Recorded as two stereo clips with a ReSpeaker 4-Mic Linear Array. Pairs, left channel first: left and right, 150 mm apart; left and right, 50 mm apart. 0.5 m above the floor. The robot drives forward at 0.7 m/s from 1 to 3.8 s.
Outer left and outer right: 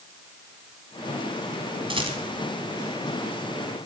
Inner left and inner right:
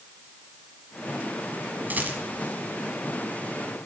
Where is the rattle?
35° right (ahead or behind), 1.6 m; by 2.2 s 40° right (ahead or behind), 1.4 m.